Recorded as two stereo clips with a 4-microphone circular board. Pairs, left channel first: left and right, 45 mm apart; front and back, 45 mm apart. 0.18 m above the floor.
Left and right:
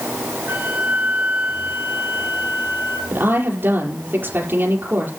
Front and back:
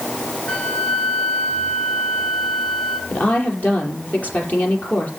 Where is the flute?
60° right, 3.5 m.